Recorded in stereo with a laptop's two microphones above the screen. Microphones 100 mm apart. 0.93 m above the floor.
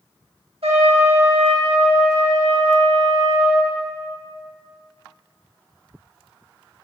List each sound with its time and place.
0.6 s a trumpet: 75° right (ahead or behind), 1.2 m